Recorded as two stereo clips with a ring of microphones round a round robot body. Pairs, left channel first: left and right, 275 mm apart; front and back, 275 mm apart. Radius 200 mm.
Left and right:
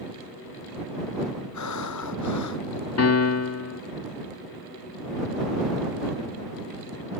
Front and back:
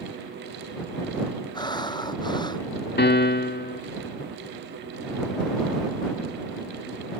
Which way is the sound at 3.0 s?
55° left.